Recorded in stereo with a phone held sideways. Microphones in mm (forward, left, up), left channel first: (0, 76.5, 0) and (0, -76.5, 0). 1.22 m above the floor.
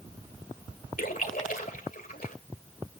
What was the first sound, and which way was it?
A splash, 65° left (ahead or behind).